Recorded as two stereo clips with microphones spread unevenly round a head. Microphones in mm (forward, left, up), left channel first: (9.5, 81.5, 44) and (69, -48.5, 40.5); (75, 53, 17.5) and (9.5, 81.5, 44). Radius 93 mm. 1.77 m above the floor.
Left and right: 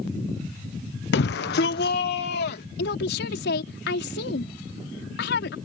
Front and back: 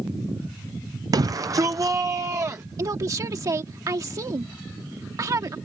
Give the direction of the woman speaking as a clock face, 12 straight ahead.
8 o'clock.